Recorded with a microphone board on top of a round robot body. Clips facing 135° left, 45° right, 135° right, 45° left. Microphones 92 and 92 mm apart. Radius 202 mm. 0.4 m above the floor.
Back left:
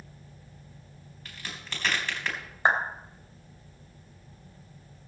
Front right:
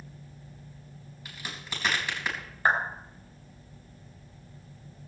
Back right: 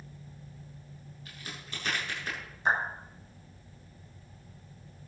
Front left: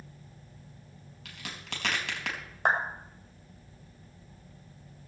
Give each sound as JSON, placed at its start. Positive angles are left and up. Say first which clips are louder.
{"t": 1.2, "sound": "a crack", "louder": "front right 1 dB, front left 3 dB", "azimuth_deg": 35, "distance_m": 4.0}
{"t": 2.6, "sound": "a clap", "louder": "back left 1 dB, front left 1 dB", "azimuth_deg": 65, "distance_m": 3.0}